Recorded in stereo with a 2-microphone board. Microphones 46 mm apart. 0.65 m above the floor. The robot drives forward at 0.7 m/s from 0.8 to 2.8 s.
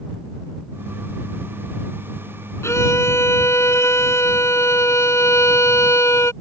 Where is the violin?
75° left (ahead or behind); by 6.3 s 80° left.